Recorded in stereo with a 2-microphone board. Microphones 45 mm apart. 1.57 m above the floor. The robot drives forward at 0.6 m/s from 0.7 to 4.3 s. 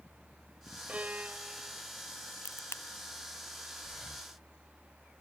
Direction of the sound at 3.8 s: 35° right (ahead or behind).